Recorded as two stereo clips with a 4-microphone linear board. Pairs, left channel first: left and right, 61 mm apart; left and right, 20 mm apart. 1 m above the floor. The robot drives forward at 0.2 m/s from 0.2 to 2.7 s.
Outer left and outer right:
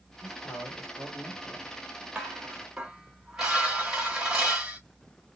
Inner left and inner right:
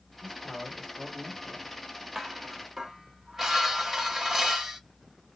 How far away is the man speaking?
About 2 m.